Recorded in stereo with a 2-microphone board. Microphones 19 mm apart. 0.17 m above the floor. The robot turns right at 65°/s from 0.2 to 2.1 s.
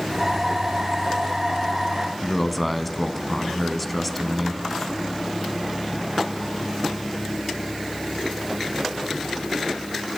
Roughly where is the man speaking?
Centre.